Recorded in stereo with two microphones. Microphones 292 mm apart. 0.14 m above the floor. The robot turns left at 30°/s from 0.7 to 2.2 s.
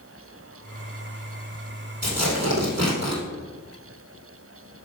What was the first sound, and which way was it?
Tearing paper, 65° right (ahead or behind).